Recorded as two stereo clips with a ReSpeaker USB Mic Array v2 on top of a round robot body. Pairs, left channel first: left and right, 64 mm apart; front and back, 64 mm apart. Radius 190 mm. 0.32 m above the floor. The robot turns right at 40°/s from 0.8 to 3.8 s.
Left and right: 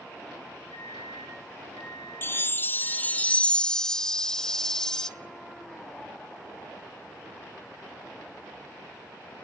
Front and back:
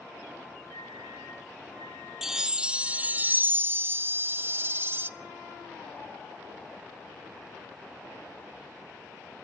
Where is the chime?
100° left, 0.6 m; by 5.1 s 165° left, 0.6 m.